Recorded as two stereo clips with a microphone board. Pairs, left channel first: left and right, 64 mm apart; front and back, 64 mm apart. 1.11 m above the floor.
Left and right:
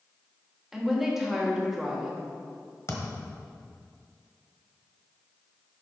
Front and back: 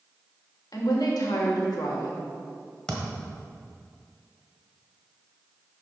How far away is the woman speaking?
About 1.6 m.